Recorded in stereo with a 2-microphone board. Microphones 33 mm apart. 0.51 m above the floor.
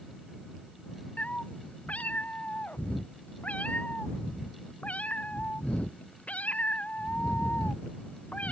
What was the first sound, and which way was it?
A cat meowing, 50° left (ahead or behind).